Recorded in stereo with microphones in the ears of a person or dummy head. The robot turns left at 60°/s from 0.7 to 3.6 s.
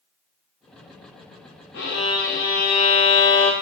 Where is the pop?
I don't hear a pop.